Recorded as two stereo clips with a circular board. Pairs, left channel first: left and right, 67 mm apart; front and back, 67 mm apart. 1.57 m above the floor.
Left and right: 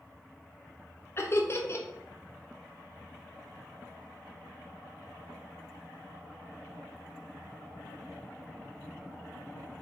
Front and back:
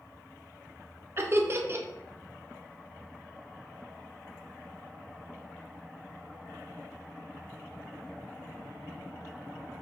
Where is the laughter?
135° left, 0.6 m.